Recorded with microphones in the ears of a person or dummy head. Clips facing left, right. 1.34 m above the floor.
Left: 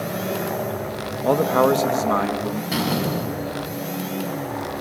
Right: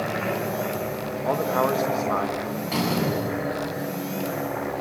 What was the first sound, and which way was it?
A man speaking, 50° left (ahead or behind).